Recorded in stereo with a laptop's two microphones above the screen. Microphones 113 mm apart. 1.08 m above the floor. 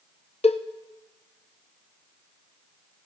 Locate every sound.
0.4 s a cowbell: 65° left (ahead or behind), 0.7 m